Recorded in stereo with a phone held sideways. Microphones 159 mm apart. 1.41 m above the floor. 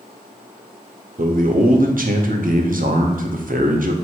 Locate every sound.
1.2 s a man speaking: 60° right (ahead or behind), 0.6 m